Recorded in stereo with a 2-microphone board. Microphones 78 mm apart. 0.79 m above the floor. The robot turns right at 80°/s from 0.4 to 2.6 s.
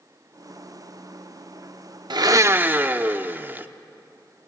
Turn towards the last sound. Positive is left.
turn(degrees=-25)